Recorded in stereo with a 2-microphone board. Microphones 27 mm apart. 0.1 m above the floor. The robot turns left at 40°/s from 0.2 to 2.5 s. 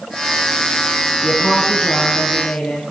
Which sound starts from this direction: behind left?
A woman speaking, at 1.2 s.